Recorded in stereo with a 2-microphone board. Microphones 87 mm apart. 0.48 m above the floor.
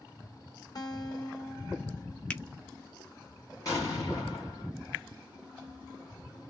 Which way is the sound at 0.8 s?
50° left (ahead or behind).